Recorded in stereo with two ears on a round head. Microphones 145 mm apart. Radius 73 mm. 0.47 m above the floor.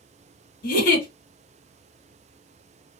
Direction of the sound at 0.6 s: 65° left (ahead or behind).